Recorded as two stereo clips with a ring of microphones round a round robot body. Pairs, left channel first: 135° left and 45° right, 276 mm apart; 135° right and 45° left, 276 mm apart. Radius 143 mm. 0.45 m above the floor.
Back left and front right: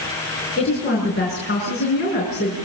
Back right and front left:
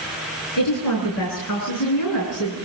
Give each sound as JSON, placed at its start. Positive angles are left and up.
{"t": 0.6, "sound": "a woman speaking", "azimuth_deg": -165, "distance_m": 8.0}